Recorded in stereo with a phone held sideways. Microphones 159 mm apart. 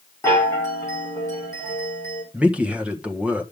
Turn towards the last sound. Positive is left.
turn(degrees=-10)  # may be behind; listen again after turning